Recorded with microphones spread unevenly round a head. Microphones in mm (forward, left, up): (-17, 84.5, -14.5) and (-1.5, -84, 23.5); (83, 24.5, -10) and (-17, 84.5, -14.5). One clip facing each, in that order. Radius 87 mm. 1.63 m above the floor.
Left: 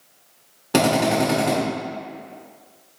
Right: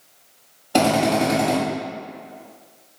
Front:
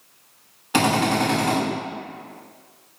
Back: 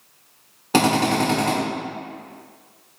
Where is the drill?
105° left, 3 m.